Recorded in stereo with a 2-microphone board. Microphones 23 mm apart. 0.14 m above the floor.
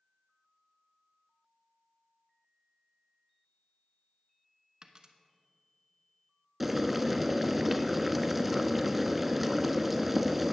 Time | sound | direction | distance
4.8 | a dropped coin | 35° right (ahead or behind) | 0.8 m
6.6 | boiling | 5° right (ahead or behind) | 0.5 m